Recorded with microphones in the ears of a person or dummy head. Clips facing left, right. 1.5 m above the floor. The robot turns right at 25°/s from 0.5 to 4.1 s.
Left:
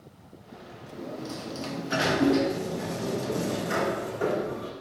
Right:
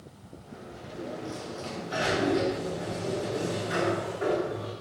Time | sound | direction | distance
0.9 | a sliding door | 45° left | 2.5 m